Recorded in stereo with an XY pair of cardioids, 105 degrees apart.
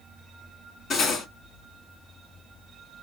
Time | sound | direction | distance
0.9 | cutlery clinking | 60° left | 2.5 m